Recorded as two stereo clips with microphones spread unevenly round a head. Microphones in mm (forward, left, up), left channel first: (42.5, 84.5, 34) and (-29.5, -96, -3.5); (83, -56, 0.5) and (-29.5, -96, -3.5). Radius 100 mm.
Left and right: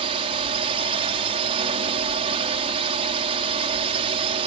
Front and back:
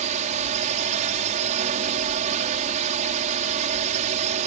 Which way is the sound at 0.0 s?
170° right.